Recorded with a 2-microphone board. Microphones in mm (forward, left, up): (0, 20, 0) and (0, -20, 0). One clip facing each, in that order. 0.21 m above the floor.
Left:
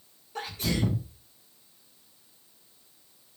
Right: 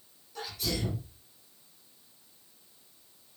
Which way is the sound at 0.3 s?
35° left (ahead or behind).